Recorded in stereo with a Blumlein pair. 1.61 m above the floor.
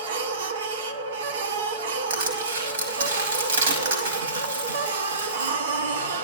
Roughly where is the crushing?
Ahead right.